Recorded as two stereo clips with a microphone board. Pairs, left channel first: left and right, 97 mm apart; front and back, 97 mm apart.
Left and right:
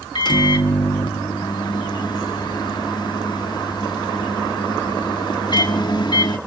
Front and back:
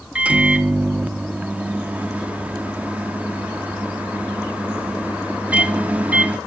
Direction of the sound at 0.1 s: 110° left.